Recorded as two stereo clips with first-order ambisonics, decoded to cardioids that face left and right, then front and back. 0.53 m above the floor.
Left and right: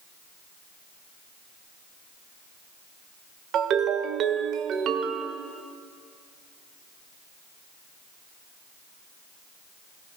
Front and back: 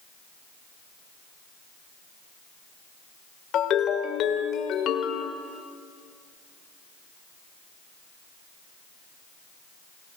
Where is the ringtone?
45° right, 1.3 m.